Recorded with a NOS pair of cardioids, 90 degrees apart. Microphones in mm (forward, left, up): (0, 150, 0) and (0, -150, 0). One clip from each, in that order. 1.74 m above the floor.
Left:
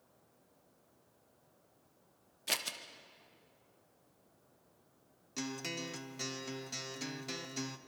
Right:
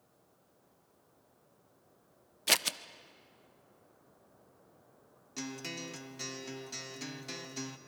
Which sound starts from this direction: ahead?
A guitar, at 5.4 s.